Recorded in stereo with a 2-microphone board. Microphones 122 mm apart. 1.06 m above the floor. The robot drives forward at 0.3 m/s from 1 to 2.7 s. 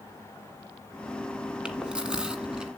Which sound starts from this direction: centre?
Chewing, at 1.6 s.